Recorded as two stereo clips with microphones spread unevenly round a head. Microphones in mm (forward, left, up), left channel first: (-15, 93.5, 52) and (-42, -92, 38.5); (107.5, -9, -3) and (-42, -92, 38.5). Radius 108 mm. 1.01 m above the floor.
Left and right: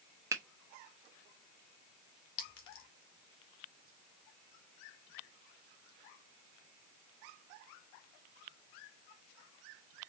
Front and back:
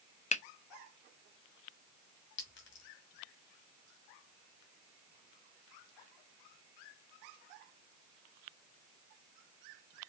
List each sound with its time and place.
0.3 s a finger snap: 20° right, 0.8 m
2.4 s a clink: 60° left, 1.8 m